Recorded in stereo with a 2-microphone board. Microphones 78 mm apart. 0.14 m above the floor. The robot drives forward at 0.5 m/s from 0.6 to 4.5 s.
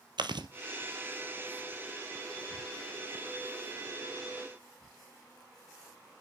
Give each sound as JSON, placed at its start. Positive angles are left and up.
{"t": 0.2, "sound": "chewing", "side_deg": -75, "distance_m": 0.9}